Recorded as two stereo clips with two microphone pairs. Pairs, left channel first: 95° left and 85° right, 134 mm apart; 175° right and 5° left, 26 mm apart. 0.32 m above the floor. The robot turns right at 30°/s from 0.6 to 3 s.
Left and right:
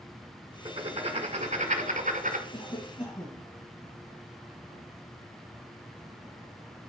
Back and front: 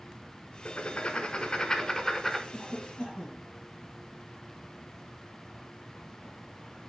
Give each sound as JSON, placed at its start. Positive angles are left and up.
{"t": 0.7, "sound": "writing", "azimuth_deg": -135, "distance_m": 1.2}
{"t": 2.5, "sound": "a cough", "azimuth_deg": 130, "distance_m": 6.5}